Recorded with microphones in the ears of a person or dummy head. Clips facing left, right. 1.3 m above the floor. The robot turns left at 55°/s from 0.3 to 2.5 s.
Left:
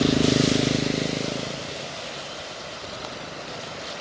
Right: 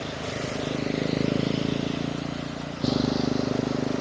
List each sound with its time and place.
0.0 s a motorcycle: 75° left (ahead or behind); by 4.0 s 60° right (ahead or behind)